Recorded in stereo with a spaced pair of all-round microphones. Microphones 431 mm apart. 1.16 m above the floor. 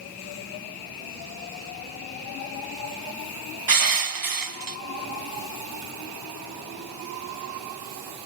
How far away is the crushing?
About 0.5 m.